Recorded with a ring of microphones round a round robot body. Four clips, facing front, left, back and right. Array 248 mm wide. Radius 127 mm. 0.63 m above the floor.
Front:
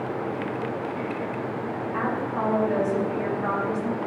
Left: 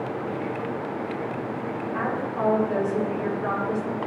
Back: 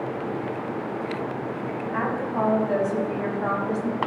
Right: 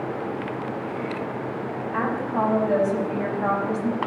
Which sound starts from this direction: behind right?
A woman speaking, at 1.9 s.